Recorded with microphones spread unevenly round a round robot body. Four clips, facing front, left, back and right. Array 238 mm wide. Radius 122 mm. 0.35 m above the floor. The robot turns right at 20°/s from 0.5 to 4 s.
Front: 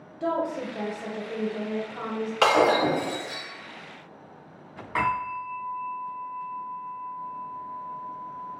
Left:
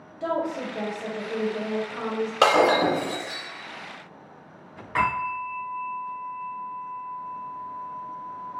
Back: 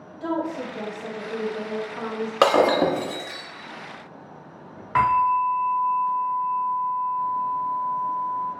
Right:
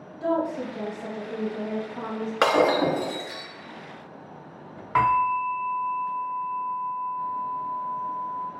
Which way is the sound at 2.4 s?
165° left.